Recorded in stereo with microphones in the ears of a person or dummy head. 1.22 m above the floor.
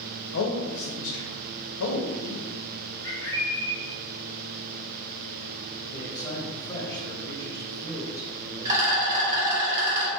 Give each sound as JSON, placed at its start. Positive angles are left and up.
{"t": 0.3, "sound": "a man speaking", "side_deg": 85, "distance_m": 0.7}
{"t": 3.0, "sound": "a bird", "side_deg": 20, "distance_m": 1.1}
{"t": 5.9, "sound": "a man speaking", "side_deg": 20, "distance_m": 1.2}
{"t": 8.7, "sound": "a rattle", "side_deg": -20, "distance_m": 1.3}